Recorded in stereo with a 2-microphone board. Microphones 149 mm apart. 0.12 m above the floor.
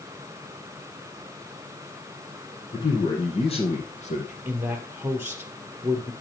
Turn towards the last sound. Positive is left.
turn(degrees=-15)  # may be behind; listen again after turning